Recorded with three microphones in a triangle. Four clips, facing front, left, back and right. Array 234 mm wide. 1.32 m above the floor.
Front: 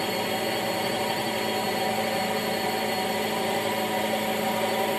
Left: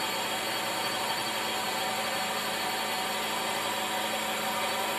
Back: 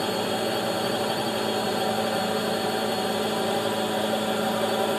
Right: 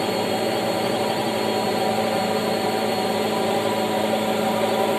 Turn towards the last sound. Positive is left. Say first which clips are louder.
# right 11 dB, back 2 dB
turn(degrees=-100)